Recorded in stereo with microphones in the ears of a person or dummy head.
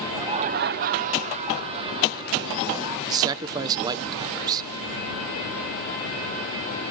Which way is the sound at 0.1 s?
20° right (ahead or behind).